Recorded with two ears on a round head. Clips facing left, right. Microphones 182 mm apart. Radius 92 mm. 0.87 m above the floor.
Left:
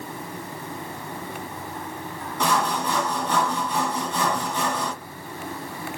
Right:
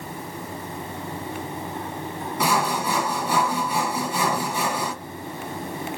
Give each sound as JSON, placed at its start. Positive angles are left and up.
{"t": 2.4, "sound": "sawing", "side_deg": -10, "distance_m": 1.6}